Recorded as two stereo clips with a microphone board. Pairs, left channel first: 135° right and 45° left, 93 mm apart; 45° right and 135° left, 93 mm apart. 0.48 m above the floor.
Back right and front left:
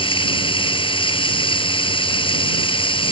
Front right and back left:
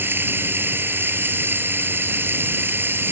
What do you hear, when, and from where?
0.0 s running water: 160° right